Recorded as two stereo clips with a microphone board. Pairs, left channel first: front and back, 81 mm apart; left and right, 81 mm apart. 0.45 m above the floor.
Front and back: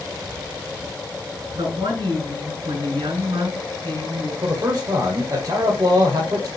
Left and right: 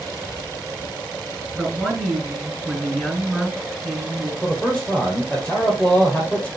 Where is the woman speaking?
175° left, 4.5 m.